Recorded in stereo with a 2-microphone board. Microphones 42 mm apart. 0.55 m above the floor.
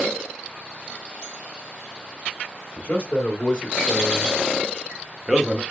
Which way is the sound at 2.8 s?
30° left (ahead or behind).